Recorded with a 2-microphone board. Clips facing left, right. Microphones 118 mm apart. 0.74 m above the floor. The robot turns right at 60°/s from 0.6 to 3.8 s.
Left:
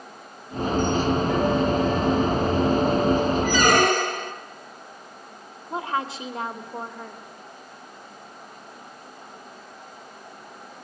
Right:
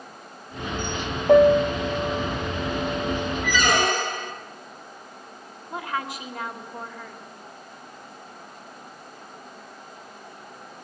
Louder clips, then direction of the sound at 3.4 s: Left 2 dB; 35° left (ahead or behind).